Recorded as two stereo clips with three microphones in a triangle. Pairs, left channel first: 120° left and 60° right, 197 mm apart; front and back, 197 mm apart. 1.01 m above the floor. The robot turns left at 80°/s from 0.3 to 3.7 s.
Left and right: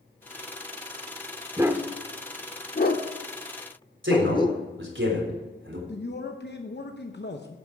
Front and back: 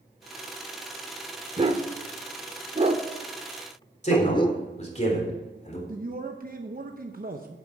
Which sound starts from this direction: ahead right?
A man speaking, at 4.0 s.